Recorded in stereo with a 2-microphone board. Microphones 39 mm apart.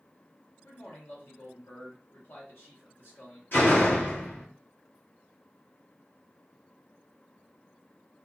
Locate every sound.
0.6 s a man speaking: 70° left (ahead or behind), 1.3 m
3.5 s a door slam: 55° left (ahead or behind), 1.3 m